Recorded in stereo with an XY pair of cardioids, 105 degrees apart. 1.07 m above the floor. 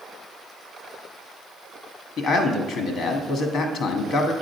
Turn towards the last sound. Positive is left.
turn(degrees=65)